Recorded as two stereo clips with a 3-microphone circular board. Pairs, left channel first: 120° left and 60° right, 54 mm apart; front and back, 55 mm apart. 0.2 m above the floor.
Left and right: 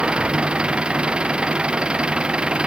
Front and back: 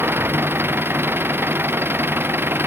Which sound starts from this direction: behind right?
An engine running, at 0.0 s.